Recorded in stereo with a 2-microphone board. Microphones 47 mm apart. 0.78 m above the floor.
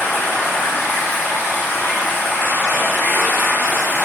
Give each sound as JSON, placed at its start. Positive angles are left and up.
{"t": 0.0, "sound": "running water", "side_deg": 55, "distance_m": 1.1}